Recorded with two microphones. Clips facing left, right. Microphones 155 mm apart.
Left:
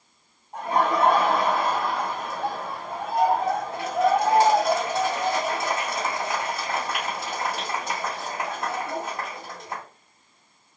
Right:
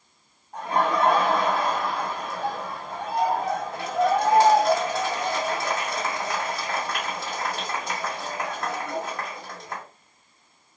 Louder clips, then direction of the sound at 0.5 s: Left 1 dB; 25° left (ahead or behind).